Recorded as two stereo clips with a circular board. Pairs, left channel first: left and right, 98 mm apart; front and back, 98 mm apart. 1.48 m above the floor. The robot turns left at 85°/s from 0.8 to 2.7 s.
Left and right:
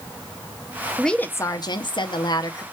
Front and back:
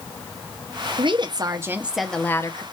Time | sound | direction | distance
1.0 | a woman speaking | straight behind | 0.5 m